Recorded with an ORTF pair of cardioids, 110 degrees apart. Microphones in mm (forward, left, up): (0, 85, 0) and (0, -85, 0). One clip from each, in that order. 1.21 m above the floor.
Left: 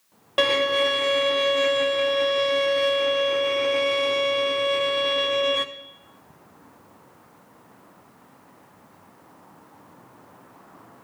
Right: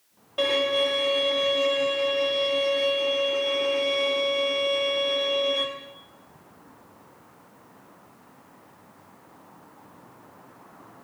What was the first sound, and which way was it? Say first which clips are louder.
A violin: left 3 dB; 60° left.